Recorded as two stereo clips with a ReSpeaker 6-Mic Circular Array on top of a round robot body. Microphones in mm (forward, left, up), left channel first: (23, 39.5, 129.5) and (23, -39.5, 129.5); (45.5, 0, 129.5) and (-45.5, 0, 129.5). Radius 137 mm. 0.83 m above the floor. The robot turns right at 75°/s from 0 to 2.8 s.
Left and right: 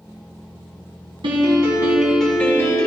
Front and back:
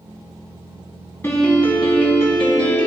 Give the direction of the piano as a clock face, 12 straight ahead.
2 o'clock.